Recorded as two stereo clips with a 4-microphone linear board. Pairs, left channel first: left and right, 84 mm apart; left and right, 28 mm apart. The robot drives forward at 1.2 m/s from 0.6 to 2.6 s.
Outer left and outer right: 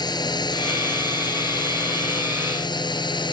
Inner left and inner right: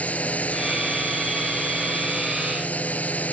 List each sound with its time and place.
0.0 s a drone: 55° left (ahead or behind); by 3.3 s 65° left (ahead or behind)